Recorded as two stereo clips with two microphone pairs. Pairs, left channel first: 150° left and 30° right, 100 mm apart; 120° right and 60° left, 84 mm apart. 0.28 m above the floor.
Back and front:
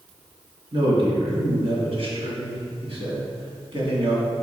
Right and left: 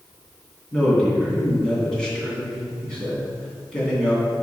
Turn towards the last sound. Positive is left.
turn(degrees=-40)